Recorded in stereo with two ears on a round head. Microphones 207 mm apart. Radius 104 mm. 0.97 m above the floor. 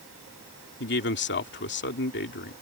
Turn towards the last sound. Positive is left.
turn(degrees=50)  # may be behind; listen again after turning